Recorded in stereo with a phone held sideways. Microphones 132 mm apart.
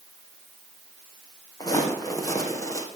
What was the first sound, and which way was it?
Footsteps, 30° left (ahead or behind).